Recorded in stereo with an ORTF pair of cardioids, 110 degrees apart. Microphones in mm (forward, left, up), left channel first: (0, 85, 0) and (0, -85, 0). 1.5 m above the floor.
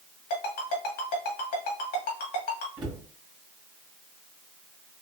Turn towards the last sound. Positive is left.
turn(degrees=-25)